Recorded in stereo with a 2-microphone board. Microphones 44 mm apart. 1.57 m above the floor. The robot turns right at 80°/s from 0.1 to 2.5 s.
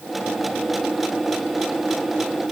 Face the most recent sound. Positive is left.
No sound to turn to.